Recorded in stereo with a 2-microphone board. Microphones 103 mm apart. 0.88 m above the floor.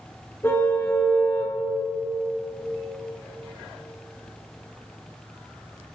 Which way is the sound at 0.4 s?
25° left (ahead or behind).